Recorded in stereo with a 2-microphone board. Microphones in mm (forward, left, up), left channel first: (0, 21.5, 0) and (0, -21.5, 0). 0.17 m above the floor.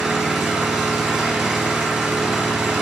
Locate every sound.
0.0 s an engine running: 10° right (ahead or behind), 1.9 m